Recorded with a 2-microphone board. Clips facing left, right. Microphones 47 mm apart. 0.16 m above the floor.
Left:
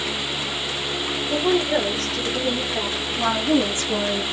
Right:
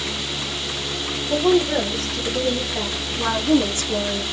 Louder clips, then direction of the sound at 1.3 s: Right 3 dB; 5° right (ahead or behind).